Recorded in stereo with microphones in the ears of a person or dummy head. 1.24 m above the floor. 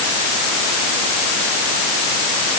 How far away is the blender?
I don't hear a blender.